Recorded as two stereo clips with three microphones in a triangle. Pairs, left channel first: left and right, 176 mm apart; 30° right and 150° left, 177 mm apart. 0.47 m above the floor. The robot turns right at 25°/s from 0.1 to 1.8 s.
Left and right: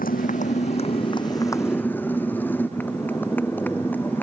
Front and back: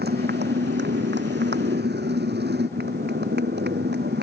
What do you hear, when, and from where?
0.0 s a motorcycle: 125° left; by 4.2 s 170° left